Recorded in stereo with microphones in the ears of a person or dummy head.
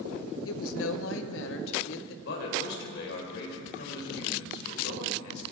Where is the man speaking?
70° left (ahead or behind), 5 m.